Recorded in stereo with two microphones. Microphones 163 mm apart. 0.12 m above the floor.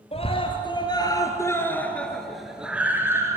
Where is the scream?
40° left (ahead or behind), 3 m; by 3.4 s 20° right (ahead or behind), 2.5 m.